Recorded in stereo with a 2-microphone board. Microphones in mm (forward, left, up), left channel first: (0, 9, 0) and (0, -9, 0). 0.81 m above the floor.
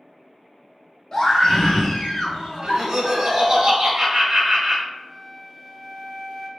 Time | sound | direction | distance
1.1 | a scream | 35° left (ahead or behind) | 1.2 m
2.6 | laughter | 45° right (ahead or behind) | 1.9 m
4.9 | a flute | 20° left (ahead or behind) | 1.2 m